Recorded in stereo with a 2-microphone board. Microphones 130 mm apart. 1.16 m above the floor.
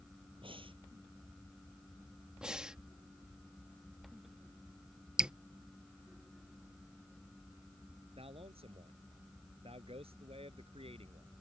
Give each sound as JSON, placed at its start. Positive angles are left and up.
{"t": 0.4, "sound": "breathing", "side_deg": -40}
{"t": 2.4, "sound": "breathing", "side_deg": -5}
{"t": 5.2, "sound": "dripping", "side_deg": -5}
{"t": 8.2, "sound": "a man speaking", "side_deg": -50}